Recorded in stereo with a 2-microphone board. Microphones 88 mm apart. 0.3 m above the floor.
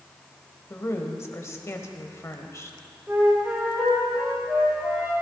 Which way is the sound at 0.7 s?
30° left (ahead or behind).